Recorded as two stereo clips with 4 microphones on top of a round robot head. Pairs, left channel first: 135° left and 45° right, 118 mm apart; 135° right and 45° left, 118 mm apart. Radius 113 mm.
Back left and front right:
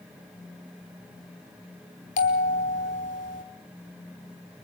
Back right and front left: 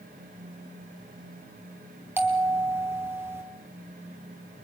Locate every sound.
2.2 s a bell: 115° left, 1.7 m